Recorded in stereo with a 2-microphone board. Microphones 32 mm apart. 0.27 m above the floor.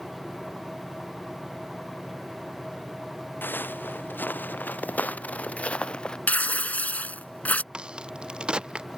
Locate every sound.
3.4 s footsteps: 80° left; by 6.2 s 25° left (ahead or behind)
6.3 s tearing paper: 55° left (ahead or behind)
7.7 s a crack: 30° right (ahead or behind)